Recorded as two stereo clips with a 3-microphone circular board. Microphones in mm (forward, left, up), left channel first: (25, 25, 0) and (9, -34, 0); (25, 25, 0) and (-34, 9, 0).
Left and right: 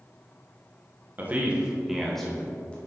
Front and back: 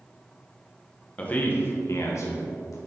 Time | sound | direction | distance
1.2 | a man speaking | 50° right | 1.1 m